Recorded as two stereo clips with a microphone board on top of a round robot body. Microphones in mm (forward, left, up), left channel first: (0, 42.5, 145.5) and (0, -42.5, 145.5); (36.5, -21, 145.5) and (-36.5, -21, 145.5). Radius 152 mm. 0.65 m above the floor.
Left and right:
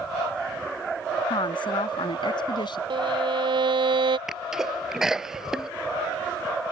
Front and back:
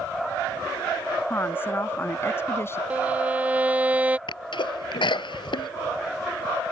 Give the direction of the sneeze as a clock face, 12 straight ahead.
12 o'clock.